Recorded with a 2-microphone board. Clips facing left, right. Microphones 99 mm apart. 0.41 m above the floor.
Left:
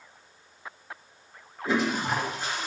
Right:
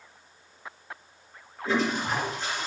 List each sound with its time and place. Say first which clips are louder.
1.6 s a toilet flushing: even; 10° left (ahead or behind), 1.7 m